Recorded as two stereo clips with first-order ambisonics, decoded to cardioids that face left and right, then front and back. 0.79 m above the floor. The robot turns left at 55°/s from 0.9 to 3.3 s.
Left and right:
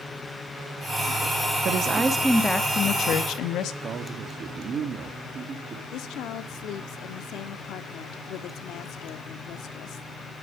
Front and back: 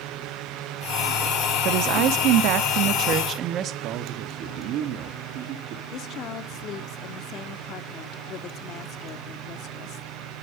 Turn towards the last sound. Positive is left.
turn(degrees=45)